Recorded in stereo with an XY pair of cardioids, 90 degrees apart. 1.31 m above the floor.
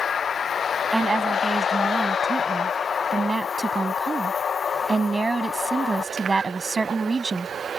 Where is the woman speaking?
30° right.